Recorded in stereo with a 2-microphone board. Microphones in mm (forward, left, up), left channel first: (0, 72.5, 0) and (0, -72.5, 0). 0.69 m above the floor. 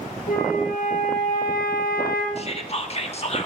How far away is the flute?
About 5 m.